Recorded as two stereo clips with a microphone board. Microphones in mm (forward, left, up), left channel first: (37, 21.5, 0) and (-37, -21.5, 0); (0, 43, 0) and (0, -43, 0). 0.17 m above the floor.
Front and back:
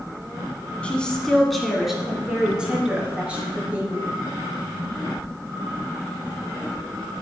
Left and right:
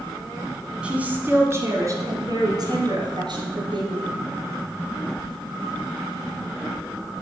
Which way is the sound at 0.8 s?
30° right.